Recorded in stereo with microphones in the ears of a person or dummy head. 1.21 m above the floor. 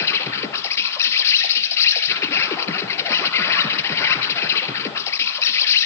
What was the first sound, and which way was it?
An insect, 15° left (ahead or behind).